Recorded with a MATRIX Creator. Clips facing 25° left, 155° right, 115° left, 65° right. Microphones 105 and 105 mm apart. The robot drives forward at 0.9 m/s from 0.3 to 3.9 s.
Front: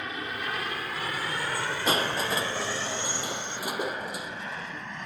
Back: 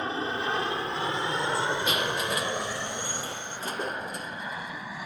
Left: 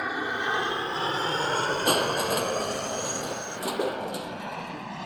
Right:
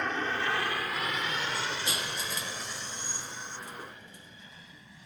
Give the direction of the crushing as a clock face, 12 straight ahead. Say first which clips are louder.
Front 1 dB, left 12 dB; 9 o'clock.